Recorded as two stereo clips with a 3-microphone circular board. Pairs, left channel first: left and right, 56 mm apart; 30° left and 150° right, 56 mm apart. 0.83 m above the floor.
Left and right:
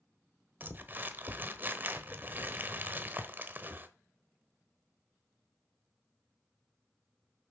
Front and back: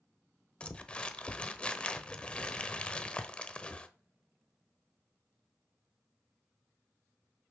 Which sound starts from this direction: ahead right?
Crumpling, at 0.6 s.